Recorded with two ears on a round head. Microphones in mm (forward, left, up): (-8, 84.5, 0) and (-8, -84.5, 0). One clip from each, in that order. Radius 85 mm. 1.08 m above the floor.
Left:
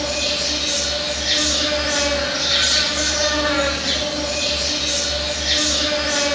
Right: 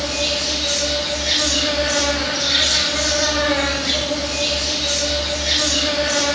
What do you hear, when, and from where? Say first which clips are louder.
0.0 s an insect: even; 35° left (ahead or behind), 8 m